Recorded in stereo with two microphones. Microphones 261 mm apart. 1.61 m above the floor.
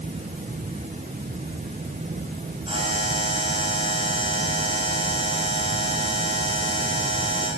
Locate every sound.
2.7 s a buzzer: 20° right (ahead or behind), 9 m